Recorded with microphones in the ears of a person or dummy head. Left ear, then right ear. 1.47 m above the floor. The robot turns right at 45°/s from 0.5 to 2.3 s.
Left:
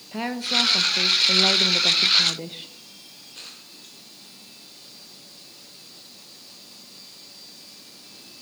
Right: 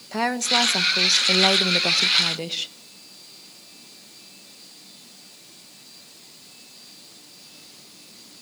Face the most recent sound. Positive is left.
turn(degrees=-50)